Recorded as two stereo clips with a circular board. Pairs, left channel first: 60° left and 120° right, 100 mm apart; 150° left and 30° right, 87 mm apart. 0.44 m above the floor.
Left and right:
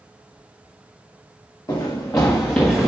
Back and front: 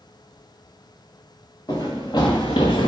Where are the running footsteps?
115° left, 2 m; by 2.9 s 155° left, 1.4 m.